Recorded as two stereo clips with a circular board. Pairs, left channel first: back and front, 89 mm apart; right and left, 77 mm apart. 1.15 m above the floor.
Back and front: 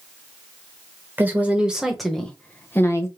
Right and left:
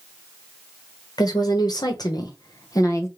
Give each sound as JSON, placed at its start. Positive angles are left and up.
{"t": 1.2, "sound": "a woman speaking", "azimuth_deg": -65, "distance_m": 1.2}